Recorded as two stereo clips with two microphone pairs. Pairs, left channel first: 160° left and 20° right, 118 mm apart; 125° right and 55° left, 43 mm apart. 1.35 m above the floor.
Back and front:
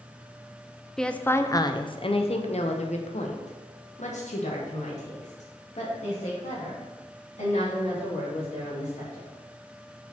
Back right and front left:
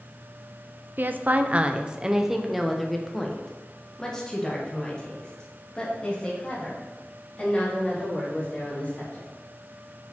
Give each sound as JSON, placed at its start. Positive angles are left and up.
{"t": 1.0, "sound": "a woman speaking", "azimuth_deg": 70, "distance_m": 0.6}